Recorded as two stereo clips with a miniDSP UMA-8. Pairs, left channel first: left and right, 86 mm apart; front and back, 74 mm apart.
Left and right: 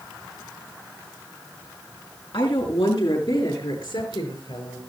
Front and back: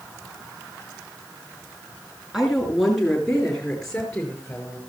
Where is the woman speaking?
95° left, 4 m; by 4.8 s 75° left, 5 m.